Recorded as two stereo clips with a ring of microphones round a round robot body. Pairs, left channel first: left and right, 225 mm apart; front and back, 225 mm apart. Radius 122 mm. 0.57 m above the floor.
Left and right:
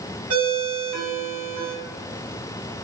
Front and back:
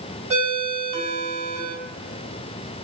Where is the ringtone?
120° right, 1.8 m.